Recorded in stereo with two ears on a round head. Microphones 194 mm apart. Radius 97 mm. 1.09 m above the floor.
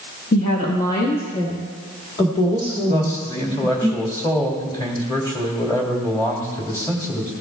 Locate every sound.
0.3 s a woman speaking: 45° left (ahead or behind), 1.3 m; by 3.9 s 20° left (ahead or behind), 3 m
2.9 s a man speaking: 20° left (ahead or behind), 2.5 m